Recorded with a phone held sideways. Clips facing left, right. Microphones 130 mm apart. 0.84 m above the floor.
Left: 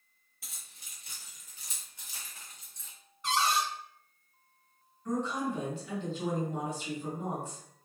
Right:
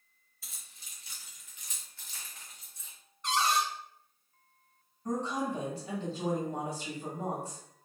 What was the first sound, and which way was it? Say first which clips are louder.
Keys jangling: left 1 dB; 70° left (ahead or behind).